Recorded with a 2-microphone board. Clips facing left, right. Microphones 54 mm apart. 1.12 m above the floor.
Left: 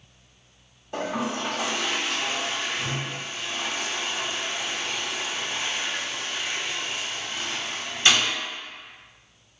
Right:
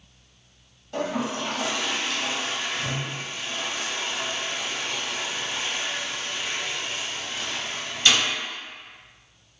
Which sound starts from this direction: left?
A toilet flushing, at 0.9 s.